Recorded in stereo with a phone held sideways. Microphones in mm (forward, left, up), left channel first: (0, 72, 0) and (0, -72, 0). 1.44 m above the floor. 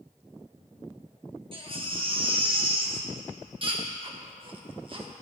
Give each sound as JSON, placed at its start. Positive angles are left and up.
{"t": 1.5, "sound": "a baby crying", "side_deg": -35, "distance_m": 1.2}